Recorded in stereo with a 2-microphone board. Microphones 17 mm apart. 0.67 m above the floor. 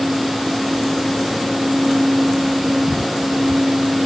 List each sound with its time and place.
Only background noise.